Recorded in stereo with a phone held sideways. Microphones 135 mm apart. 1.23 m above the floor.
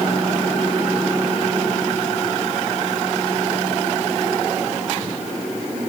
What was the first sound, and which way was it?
Only background noise.